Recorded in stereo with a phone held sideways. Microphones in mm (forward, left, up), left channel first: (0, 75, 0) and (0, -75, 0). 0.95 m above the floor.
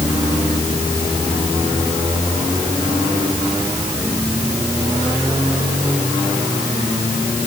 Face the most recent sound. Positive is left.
No sound to turn to.